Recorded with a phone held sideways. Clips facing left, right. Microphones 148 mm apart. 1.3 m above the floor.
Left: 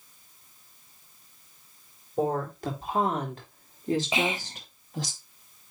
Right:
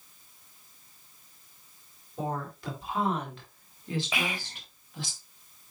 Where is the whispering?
25° left (ahead or behind), 0.8 m.